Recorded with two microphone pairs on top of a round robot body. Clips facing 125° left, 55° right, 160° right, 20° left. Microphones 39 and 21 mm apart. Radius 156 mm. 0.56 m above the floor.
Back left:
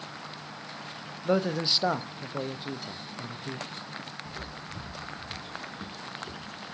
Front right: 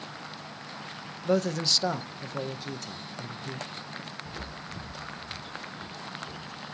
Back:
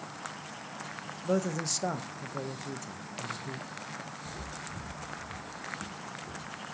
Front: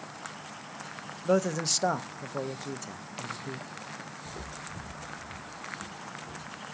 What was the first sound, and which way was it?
A man speaking, 65° left.